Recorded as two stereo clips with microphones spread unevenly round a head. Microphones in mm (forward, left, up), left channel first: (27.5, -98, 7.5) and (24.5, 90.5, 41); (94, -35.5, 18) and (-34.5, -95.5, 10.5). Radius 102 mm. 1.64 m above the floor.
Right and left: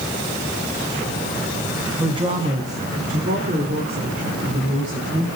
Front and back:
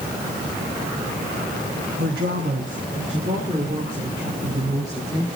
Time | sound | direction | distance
2.0 | a woman speaking | 160° left | 2 m